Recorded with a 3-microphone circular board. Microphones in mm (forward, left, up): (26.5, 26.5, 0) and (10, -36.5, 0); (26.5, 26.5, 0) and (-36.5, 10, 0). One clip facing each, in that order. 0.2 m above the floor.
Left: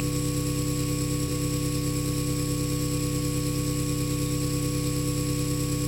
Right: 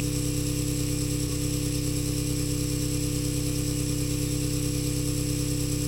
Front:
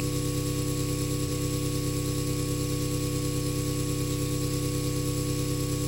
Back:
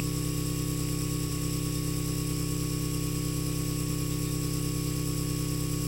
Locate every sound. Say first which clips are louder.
0.0 s an engine running: left 1 dB, front 3 dB; 35° left, 2.0 m